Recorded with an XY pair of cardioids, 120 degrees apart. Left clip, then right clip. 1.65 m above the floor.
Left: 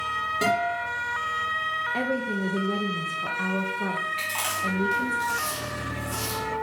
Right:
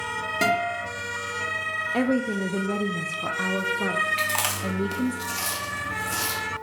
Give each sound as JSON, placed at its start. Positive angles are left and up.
{"t": 0.4, "sound": "a guitar", "azimuth_deg": -35, "distance_m": 5.5}
{"t": 1.9, "sound": "a woman speaking", "azimuth_deg": -25, "distance_m": 0.8}
{"t": 4.2, "sound": "chewing", "azimuth_deg": -45, "distance_m": 2.0}